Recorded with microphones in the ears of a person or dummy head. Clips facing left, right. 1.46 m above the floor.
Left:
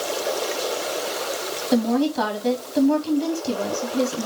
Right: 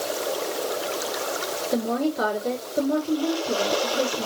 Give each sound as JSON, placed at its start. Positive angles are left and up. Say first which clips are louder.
{"t": 1.7, "sound": "a woman speaking", "louder": "left 5 dB", "side_deg": 80, "distance_m": 4.0}